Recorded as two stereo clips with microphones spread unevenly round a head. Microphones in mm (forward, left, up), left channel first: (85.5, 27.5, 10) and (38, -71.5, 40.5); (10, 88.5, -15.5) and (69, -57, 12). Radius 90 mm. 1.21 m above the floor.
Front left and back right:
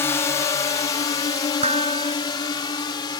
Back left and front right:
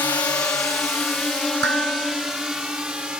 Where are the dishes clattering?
95° right.